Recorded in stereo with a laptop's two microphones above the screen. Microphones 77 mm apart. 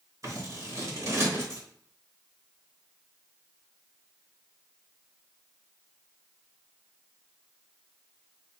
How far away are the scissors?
About 2.5 m.